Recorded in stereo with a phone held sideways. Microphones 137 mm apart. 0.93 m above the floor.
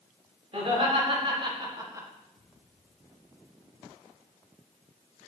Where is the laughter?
50° right (ahead or behind), 3.5 m; by 2.1 s 20° right (ahead or behind), 1.6 m.